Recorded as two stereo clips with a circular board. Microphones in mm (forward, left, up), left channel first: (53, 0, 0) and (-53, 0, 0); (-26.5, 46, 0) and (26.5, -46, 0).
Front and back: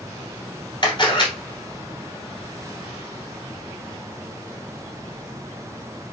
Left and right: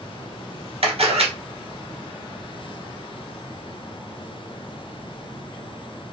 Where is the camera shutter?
45° right, 1.5 m.